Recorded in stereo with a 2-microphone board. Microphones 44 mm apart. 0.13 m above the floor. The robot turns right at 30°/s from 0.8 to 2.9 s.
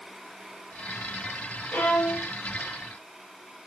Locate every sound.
1.7 s a violin: 40° left (ahead or behind), 2.5 m; by 2.3 s 55° left (ahead or behind), 2.5 m